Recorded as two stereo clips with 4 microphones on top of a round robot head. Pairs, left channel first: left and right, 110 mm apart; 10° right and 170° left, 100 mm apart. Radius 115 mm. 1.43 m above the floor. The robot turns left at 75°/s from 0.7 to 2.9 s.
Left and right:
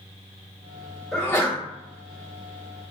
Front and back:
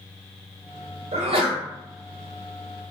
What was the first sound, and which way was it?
A sneeze, 175° left.